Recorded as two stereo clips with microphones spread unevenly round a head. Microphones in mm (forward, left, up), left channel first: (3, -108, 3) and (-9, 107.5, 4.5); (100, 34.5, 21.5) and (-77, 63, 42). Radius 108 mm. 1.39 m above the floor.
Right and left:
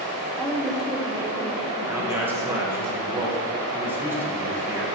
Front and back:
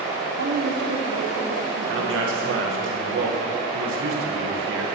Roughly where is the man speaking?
Behind.